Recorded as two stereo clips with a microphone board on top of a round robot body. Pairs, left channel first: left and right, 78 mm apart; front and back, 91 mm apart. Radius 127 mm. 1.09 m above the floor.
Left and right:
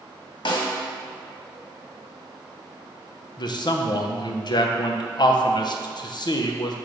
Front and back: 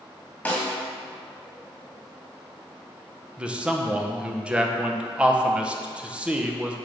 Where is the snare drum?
75° left, 2 m.